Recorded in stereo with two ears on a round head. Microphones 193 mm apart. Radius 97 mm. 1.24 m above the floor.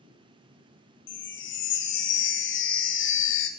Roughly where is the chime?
Left.